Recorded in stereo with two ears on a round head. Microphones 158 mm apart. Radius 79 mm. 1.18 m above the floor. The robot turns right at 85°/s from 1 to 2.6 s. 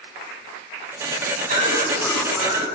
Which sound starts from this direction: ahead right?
A cough, at 1.5 s.